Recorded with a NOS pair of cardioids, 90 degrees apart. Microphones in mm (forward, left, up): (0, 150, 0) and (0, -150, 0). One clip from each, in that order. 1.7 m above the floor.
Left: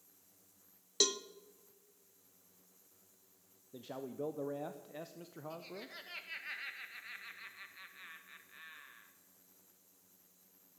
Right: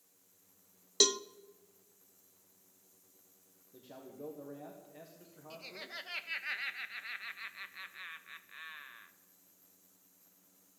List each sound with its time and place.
1.0 s a cowbell: 15° right, 0.5 m
3.7 s a man speaking: 50° left, 1.2 m
5.5 s laughter: 35° right, 1.5 m